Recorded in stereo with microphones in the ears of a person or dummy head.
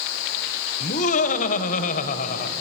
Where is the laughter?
45° left (ahead or behind), 1.1 m.